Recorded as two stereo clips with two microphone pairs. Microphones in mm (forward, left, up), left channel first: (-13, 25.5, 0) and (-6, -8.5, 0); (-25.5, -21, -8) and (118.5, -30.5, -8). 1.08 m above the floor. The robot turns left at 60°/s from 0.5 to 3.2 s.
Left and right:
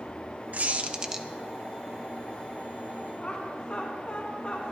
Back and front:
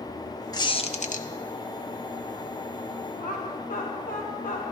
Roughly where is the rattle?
No rattle in this recording.